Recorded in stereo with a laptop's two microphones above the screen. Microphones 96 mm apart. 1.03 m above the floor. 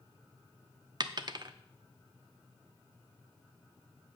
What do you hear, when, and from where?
1.0 s a dropped coin: 45° right (ahead or behind), 0.8 m